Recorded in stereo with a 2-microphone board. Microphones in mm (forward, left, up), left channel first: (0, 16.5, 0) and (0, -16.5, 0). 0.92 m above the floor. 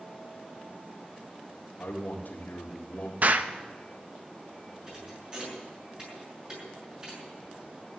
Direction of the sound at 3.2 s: 55° right (ahead or behind).